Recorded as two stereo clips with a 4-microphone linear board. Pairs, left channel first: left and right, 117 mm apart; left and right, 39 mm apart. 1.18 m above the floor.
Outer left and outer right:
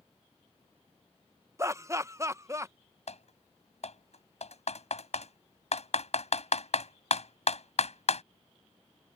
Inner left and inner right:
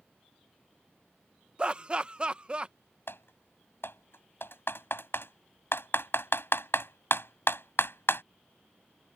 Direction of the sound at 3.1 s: 70° left (ahead or behind).